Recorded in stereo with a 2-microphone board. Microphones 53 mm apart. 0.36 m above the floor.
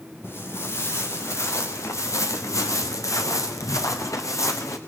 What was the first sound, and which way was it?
Footsteps, 45° left (ahead or behind).